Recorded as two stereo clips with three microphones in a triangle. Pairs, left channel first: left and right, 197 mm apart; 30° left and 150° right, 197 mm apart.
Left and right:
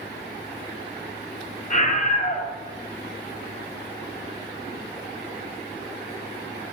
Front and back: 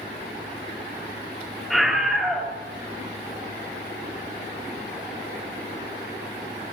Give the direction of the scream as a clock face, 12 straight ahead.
8 o'clock.